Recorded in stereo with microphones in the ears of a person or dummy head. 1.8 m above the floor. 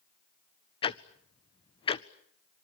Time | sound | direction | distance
0.8 | ticking | 25° left (ahead or behind) | 0.7 m